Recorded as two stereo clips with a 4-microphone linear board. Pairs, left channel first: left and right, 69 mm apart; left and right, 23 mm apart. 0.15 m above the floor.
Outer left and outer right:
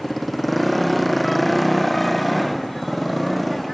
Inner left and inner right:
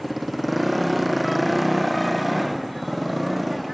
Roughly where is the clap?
I don't hear a clap.